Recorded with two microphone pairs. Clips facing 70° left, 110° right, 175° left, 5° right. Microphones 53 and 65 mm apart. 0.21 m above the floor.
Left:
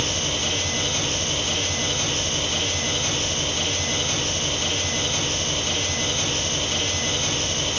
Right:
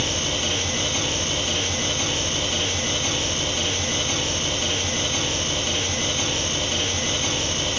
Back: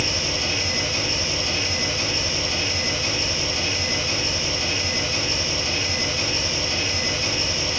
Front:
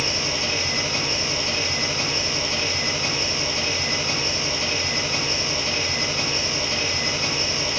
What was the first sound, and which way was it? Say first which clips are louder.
An engine running: right 1 dB, even; 35° right.